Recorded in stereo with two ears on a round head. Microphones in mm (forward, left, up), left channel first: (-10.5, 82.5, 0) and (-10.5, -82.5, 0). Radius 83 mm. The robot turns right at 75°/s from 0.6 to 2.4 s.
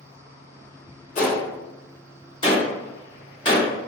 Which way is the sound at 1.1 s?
35° left (ahead or behind).